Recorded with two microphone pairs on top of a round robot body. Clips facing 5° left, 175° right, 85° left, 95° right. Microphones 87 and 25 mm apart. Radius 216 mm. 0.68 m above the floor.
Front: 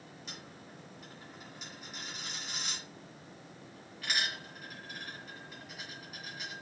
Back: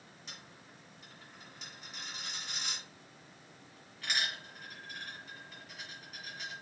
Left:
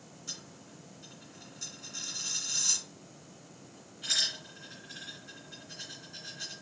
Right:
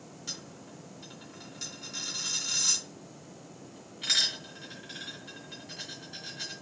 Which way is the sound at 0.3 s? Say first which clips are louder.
Front 3 dB, right 3 dB; 85° right.